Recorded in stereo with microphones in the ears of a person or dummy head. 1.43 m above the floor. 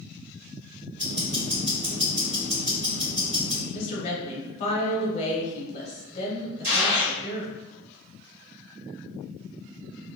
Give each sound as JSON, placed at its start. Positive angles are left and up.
{"t": 1.0, "sound": "ticking", "side_deg": -35, "distance_m": 1.6}
{"t": 3.7, "sound": "a woman speaking", "side_deg": 40, "distance_m": 0.9}
{"t": 6.6, "sound": "a gunshot", "side_deg": -70, "distance_m": 1.5}